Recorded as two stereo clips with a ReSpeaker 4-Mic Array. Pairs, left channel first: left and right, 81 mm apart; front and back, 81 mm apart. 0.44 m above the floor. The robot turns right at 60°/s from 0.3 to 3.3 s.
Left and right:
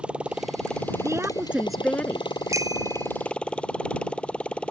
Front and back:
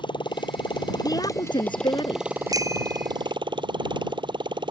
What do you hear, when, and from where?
0.0 s a motorcycle: 15° right; by 4.7 s 165° left
1.0 s a woman speaking: 40° right; by 2.3 s 30° left
2.5 s a bicycle bell: 140° right; by 3.1 s 105° right